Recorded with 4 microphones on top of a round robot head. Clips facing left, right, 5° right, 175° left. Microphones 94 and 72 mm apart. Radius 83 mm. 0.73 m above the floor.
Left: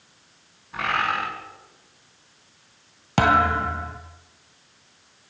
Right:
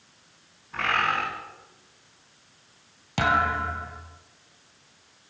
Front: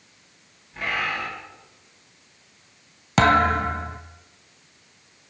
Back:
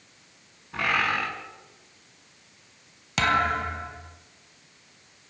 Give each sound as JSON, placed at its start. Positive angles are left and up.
{"t": 0.7, "sound": "a bird", "azimuth_deg": 170, "distance_m": 7.0}
{"t": 3.2, "sound": "a thud", "azimuth_deg": 40, "distance_m": 1.9}